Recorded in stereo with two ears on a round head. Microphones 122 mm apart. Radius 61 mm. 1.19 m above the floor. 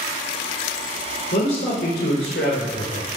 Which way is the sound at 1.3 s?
90° left.